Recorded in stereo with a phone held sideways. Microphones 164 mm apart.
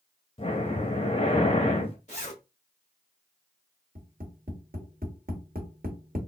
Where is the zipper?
45° left (ahead or behind), 1.9 m.